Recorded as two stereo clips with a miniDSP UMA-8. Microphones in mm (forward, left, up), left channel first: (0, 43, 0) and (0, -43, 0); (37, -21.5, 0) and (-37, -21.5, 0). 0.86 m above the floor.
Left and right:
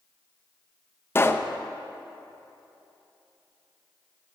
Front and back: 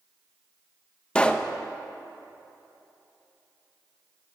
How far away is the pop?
About 0.5 m.